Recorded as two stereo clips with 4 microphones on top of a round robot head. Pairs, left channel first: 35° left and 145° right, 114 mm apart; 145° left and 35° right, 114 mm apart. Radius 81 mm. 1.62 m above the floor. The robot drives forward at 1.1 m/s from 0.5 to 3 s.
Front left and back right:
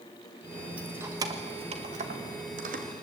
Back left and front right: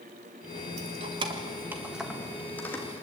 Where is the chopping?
No chopping in this recording.